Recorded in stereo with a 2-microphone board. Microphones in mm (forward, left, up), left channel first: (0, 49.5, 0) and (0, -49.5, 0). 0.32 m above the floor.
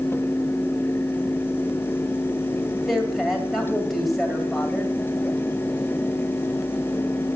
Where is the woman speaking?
Centre (ahead or behind), 1.9 m.